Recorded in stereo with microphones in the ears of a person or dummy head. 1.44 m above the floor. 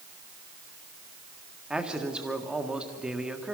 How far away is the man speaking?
About 1.7 m.